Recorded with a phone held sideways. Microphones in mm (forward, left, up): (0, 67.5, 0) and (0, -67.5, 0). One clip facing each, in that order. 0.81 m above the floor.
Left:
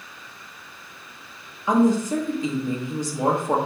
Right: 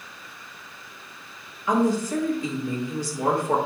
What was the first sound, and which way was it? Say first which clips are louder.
A woman speaking: left 3 dB; 20° left (ahead or behind).